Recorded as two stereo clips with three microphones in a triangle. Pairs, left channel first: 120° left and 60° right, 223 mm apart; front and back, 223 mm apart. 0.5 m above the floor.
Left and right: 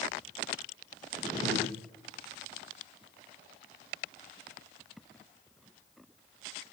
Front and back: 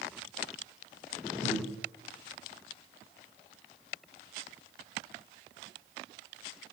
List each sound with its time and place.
1.4 s breathing: 15° left, 1.5 m